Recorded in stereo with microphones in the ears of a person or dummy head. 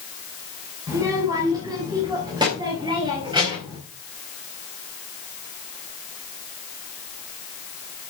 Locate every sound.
0.9 s a child speaking: 10° right (ahead or behind), 2.5 m; by 3.8 s 25° right (ahead or behind), 4 m